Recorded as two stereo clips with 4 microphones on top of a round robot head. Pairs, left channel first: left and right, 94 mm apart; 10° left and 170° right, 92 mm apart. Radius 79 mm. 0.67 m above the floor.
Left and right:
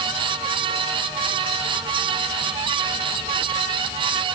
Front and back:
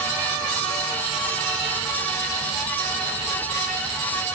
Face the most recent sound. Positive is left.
No sound to turn to.